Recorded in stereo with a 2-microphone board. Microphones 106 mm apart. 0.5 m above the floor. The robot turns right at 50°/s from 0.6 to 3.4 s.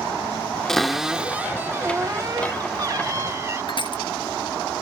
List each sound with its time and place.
0.7 s a cupboard door: 170° left; by 3.6 s 55° right
3.7 s crushing: 50° left (ahead or behind)